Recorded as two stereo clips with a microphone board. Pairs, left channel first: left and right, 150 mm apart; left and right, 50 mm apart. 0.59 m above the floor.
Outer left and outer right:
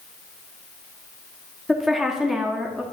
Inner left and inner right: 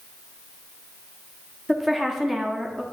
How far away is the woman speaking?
About 0.8 m.